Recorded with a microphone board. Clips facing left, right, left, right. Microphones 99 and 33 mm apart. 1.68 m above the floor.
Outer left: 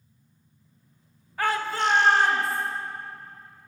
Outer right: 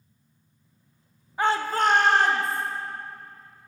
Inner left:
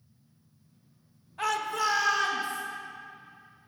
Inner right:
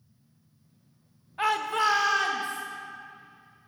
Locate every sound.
1.4 s a shout: 20° right (ahead or behind), 0.6 m; by 2.6 s 55° right (ahead or behind), 1.4 m